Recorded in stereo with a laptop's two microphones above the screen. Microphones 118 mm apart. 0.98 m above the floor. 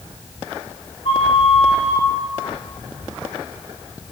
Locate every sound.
1.1 s a flute: 55° left (ahead or behind), 0.9 m